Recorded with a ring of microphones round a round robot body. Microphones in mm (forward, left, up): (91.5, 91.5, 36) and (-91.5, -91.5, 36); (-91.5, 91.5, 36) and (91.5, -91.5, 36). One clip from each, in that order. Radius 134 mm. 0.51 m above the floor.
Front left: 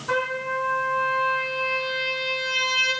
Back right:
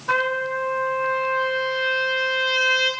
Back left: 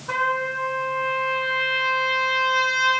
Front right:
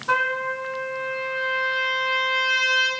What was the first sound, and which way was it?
A trumpet, 85° right.